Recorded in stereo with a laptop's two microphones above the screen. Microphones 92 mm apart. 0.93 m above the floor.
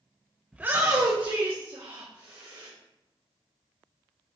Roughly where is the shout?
Centre.